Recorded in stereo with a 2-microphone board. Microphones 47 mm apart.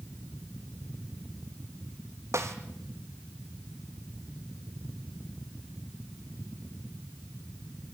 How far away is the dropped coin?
No dropped coin in this recording.